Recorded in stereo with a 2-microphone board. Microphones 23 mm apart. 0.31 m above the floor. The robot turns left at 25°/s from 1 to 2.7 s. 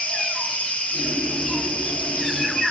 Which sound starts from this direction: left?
An insect, at 0.0 s.